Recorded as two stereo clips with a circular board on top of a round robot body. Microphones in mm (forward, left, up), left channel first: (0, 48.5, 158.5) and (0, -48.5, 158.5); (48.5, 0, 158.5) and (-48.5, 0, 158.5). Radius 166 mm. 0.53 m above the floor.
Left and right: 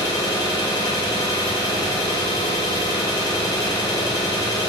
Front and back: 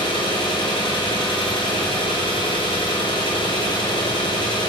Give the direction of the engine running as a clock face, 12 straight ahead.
11 o'clock.